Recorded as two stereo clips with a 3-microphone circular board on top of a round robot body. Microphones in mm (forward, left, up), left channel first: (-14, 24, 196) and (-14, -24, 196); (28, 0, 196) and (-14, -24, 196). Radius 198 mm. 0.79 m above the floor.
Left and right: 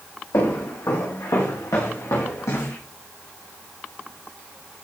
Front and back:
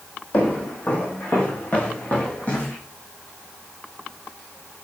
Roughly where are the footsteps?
Left.